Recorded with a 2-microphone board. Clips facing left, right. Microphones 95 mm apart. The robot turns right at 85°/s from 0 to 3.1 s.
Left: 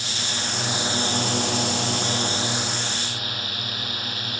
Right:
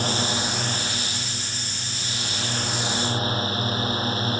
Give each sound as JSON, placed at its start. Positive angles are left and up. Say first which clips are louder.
{"t": 0.0, "sound": "a drone", "louder": "right 6 dB", "azimuth_deg": -50}